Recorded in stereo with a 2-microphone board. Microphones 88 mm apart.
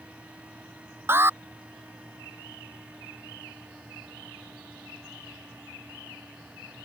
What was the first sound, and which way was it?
An alarm, 25° right (ahead or behind).